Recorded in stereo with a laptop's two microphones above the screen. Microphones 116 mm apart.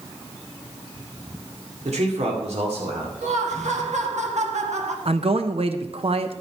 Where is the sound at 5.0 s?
55° right (ahead or behind), 0.8 m.